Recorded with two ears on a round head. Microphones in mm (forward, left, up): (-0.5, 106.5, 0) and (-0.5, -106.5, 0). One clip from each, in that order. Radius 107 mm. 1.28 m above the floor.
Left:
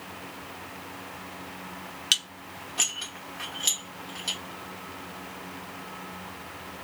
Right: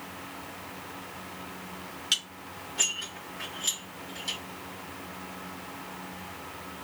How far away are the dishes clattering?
About 1.5 m.